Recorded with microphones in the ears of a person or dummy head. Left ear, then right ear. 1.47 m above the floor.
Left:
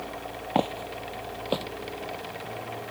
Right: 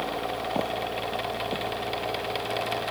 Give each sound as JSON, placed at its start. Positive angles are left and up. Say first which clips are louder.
{"t": 0.6, "sound": "footsteps", "louder": "left 5 dB", "side_deg": 30}